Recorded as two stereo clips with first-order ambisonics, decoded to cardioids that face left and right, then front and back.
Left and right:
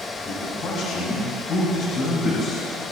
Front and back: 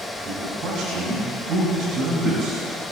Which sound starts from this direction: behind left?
A man speaking, at 0.2 s.